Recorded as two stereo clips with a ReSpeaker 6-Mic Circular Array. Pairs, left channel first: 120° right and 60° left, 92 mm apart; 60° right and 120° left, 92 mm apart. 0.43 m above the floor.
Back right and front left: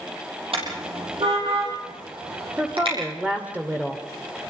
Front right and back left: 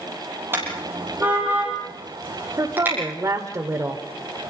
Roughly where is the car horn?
Ahead left.